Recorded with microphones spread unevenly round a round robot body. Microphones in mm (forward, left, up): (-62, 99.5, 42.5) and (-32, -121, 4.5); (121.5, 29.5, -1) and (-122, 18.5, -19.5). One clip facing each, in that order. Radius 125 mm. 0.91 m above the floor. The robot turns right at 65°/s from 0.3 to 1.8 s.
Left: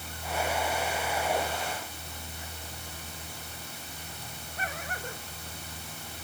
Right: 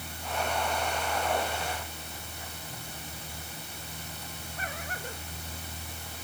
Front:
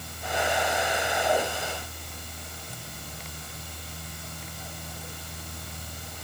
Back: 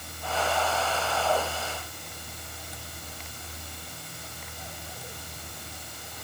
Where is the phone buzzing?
No phone buzzing in this recording.